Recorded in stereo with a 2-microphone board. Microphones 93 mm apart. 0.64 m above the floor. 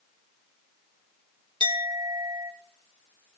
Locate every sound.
1.6 s a clink: 60° right (ahead or behind), 1.1 m